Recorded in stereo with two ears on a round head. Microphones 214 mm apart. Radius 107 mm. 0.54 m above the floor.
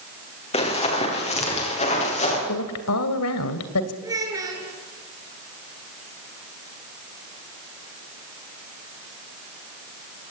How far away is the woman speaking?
About 2.5 m.